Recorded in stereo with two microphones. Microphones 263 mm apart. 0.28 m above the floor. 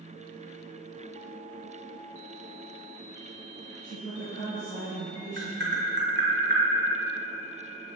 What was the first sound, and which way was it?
A woman speaking, 55° left (ahead or behind).